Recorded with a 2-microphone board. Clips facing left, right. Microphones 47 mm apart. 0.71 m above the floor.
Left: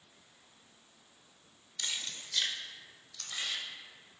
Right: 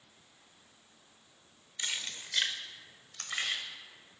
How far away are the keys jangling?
About 1.3 m.